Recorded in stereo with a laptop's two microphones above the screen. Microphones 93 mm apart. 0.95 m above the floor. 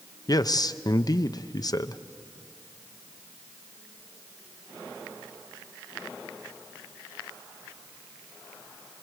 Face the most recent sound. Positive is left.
turn(degrees=45)  # may be behind; listen again after turning